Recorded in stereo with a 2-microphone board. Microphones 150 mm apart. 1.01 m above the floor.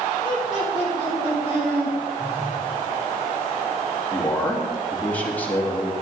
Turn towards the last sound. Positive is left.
turn(degrees=10)  # may be behind; listen again after turning